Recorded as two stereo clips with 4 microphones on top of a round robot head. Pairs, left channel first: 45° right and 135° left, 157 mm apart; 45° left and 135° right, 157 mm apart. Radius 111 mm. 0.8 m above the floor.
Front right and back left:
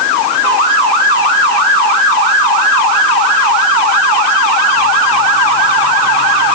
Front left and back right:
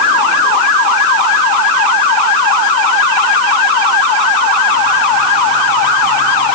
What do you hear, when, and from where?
Only background noise.